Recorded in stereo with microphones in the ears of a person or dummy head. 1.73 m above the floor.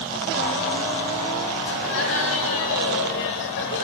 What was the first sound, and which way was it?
Laughter, 85° left.